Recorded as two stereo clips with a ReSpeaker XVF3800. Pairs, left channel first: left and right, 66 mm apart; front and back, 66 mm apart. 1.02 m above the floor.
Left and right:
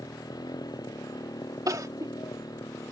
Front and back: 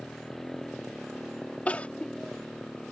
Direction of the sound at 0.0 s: 85° left.